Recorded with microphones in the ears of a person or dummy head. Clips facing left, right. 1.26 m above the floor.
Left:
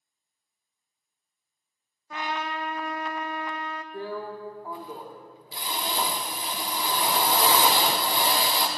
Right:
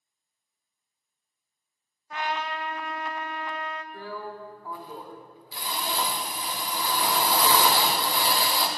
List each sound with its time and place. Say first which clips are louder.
2.1 s a trumpet: right 1 dB; 70° left (ahead or behind), 0.7 m
3.9 s a drill: left 3 dB; 20° left (ahead or behind), 1.3 m